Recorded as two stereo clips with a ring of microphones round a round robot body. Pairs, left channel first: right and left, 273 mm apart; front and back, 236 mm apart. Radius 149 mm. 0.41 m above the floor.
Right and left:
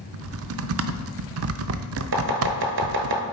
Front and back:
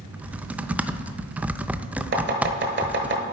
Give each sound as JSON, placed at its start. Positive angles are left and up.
{"t": 0.1, "sound": "typing on a keyboard", "azimuth_deg": 95, "distance_m": 0.6}
{"t": 2.1, "sound": "chopping", "azimuth_deg": 140, "distance_m": 1.3}